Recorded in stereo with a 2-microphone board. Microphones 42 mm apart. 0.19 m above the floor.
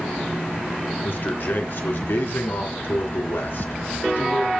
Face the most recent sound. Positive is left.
turn(degrees=55)  # may be behind; listen again after turning